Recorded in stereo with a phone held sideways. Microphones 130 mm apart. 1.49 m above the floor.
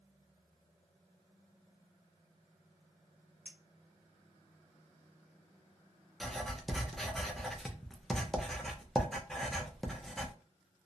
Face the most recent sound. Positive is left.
turn(degrees=0)  # may be behind; listen again after turning